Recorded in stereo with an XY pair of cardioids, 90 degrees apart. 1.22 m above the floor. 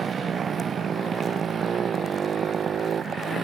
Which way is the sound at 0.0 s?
50° right.